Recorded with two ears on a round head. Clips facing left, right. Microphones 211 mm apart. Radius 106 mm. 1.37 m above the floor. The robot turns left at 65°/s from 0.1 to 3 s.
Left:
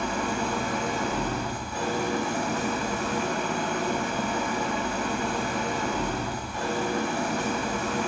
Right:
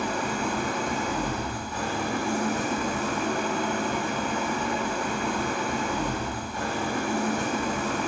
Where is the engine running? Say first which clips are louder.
Even; 140° right, 1.7 m; by 8.1 s 30° left, 1.7 m.